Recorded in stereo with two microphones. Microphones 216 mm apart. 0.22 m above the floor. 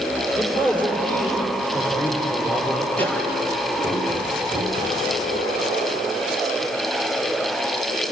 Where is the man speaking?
10° left (ahead or behind), 6.5 m.